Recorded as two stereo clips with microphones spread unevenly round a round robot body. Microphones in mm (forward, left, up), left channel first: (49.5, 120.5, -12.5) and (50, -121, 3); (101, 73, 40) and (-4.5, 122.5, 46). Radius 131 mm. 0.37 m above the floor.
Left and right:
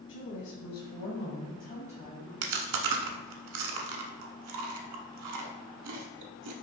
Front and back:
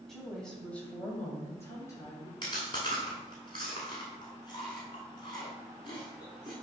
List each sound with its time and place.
0.1 s a woman speaking: 60° left, 2.5 m; by 2.3 s 25° left, 2.0 m
2.4 s chewing: 95° right, 1.0 m